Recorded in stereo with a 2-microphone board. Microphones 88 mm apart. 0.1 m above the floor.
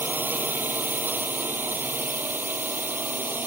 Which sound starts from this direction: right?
A drone, at 0.0 s.